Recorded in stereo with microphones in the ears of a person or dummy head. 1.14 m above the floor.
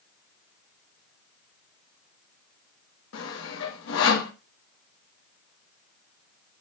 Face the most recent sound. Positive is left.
turn(degrees=70)  # may be behind; listen again after turning